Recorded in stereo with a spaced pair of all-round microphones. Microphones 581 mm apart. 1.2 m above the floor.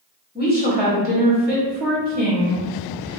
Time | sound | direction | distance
0.3 | a woman speaking | 15° left (ahead or behind) | 1.0 m